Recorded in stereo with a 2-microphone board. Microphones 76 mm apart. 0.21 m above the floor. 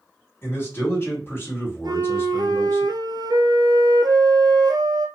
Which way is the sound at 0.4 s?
30° left (ahead or behind).